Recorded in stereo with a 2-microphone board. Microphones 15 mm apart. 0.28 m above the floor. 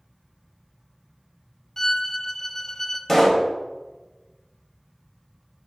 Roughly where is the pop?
Centre.